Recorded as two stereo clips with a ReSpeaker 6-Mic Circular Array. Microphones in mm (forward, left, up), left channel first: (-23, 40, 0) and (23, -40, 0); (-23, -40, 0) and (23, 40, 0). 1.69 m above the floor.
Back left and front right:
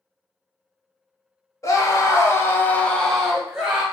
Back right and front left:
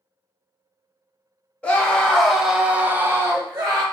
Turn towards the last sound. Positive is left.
turn(degrees=15)